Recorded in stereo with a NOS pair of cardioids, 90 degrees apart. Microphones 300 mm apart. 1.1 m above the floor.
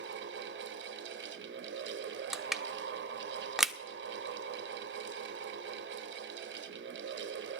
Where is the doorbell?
No doorbell in this recording.